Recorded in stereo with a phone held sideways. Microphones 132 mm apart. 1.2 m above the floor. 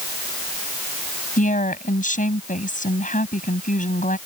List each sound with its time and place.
1.4 s a woman speaking: 75° left (ahead or behind)